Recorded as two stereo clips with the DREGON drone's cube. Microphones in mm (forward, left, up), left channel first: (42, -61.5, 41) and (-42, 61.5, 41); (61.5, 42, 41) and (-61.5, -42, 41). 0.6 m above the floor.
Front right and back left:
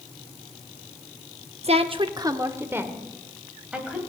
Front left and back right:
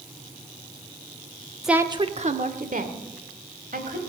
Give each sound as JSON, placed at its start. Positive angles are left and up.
{"t": 1.6, "sound": "a woman speaking", "azimuth_deg": 125, "distance_m": 0.7}